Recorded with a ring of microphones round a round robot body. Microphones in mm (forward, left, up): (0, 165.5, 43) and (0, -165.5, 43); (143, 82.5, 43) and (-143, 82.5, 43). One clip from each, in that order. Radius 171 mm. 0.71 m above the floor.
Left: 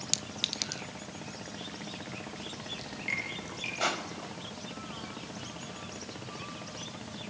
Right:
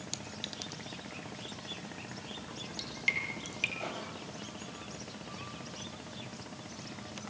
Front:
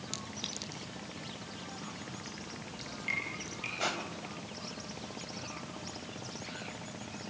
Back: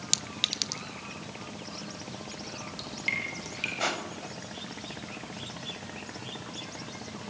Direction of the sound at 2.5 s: 115° right.